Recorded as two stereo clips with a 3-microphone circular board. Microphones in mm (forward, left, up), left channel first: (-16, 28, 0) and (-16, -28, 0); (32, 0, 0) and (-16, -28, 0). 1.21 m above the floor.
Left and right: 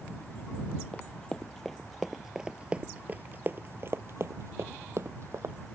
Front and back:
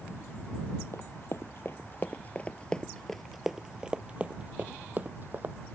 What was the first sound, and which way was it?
Running footsteps, 20° left.